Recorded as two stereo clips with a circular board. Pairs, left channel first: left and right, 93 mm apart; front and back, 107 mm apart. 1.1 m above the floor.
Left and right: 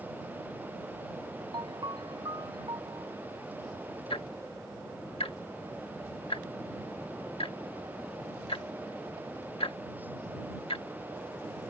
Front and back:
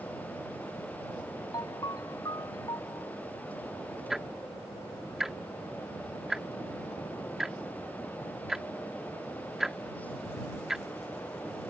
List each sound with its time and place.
1.5 s a ringtone: 50° right
4.1 s ticking: 95° left